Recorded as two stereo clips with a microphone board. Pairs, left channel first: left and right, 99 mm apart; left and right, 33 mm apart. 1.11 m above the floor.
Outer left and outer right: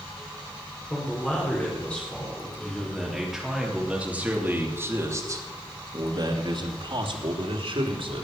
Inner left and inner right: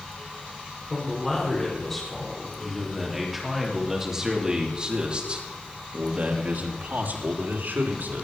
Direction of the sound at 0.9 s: 20° left (ahead or behind).